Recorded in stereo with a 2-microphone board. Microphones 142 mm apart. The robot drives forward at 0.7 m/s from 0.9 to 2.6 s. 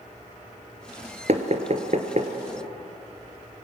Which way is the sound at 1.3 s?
50° right (ahead or behind).